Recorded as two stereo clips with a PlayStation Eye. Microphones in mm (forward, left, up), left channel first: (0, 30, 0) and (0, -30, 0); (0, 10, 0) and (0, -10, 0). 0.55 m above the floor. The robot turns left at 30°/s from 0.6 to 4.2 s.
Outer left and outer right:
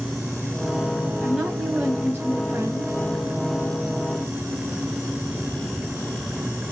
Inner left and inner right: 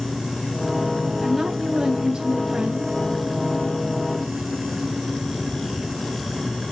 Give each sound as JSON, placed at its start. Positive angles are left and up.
{"t": 1.2, "sound": "a woman speaking", "azimuth_deg": -5, "distance_m": 3.0}